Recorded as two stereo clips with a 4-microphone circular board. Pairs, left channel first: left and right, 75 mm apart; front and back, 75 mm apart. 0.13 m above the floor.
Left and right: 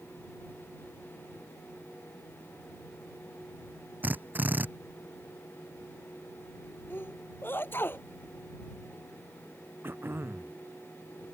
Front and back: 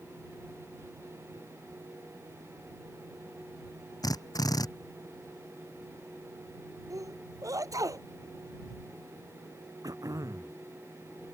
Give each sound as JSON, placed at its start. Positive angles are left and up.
{"t": 4.0, "sound": "a drill", "azimuth_deg": -25}
{"t": 6.9, "sound": "a sneeze", "azimuth_deg": 145}
{"t": 9.8, "sound": "throat clearing", "azimuth_deg": -145}